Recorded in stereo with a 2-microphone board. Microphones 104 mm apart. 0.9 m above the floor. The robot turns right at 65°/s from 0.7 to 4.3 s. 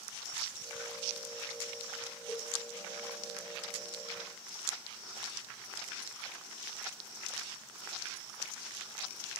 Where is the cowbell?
40° left (ahead or behind), 2.5 m; by 2.5 s 25° left (ahead or behind), 2.5 m.